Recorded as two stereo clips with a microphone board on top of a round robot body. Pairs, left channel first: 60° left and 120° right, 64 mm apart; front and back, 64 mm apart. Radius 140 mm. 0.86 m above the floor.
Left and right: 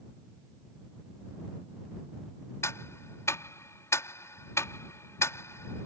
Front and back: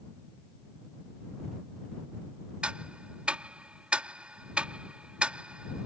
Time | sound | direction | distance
2.6 | ticking | 105° left | ?